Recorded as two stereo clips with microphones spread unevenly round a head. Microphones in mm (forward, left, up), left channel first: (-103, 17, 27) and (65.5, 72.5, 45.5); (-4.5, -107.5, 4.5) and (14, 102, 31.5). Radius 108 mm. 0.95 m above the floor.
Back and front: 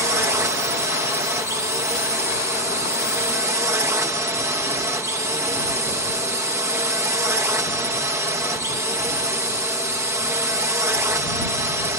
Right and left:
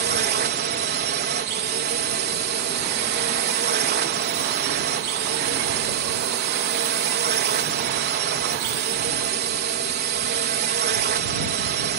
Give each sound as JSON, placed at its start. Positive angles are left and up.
{"t": 0.0, "sound": "a drone", "azimuth_deg": 90}